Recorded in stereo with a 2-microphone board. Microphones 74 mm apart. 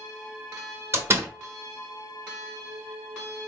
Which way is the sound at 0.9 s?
35° right (ahead or behind).